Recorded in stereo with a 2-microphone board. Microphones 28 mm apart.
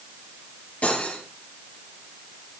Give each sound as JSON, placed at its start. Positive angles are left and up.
{"t": 0.8, "sound": "cutlery clinking", "side_deg": 55, "distance_m": 5.0}